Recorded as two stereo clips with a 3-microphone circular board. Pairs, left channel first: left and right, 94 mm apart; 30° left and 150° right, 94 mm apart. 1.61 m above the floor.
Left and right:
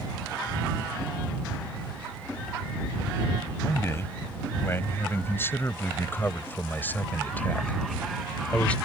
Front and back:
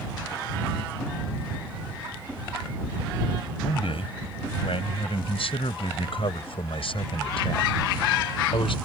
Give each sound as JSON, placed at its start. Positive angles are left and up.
{"t": 3.6, "sound": "a man speaking", "azimuth_deg": 30}